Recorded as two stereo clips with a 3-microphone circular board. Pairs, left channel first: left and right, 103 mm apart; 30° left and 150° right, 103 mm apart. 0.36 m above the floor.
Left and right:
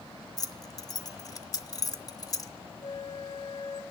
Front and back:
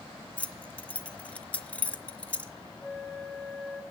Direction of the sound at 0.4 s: 100° left.